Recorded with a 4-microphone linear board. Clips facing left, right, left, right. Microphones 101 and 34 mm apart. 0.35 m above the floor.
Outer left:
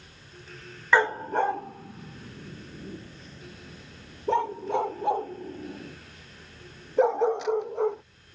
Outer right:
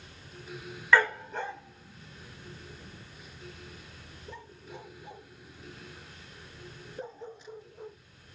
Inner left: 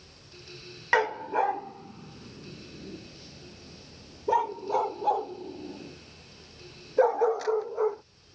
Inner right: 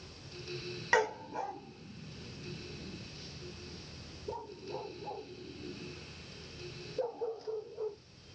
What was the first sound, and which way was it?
A dog barking, 20° left (ahead or behind).